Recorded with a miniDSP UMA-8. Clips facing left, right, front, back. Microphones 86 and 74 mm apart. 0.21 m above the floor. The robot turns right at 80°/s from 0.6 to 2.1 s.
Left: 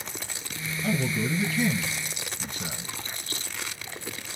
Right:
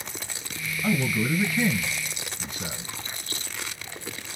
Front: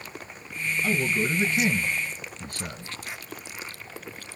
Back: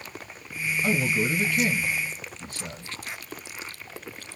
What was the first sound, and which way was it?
A man speaking, 110° right.